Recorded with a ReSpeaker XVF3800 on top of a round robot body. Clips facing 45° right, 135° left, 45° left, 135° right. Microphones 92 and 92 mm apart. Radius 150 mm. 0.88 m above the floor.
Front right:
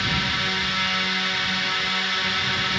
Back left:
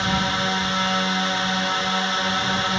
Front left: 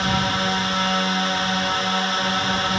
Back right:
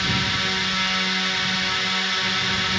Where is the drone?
85° left.